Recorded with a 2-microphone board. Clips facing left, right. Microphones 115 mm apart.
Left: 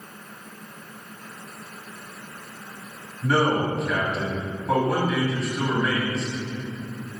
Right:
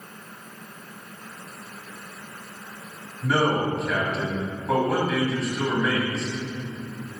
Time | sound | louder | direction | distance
3.2 | a man speaking | left 1 dB | centre (ahead or behind) | 2.5 m